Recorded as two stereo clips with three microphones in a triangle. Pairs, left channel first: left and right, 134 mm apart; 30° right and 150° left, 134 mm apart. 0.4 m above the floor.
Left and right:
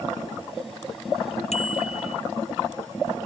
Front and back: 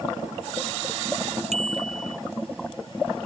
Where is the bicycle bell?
120° left.